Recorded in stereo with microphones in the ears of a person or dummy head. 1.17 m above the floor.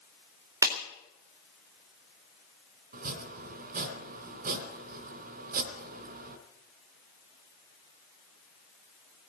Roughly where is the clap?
Centre.